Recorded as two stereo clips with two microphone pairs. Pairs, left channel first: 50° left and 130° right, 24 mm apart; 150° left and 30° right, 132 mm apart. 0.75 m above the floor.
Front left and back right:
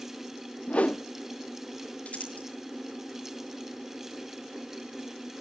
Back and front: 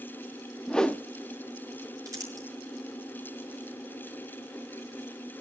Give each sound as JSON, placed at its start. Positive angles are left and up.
{"t": 0.7, "sound": "a whoosh", "azimuth_deg": 65, "distance_m": 0.6}
{"t": 2.0, "sound": "crumpling", "azimuth_deg": 35, "distance_m": 5.5}